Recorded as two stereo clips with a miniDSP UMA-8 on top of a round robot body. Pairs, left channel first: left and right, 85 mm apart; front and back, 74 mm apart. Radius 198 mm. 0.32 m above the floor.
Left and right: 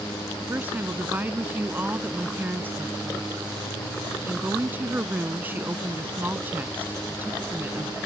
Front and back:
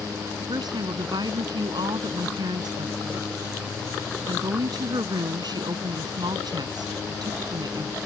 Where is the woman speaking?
160° right.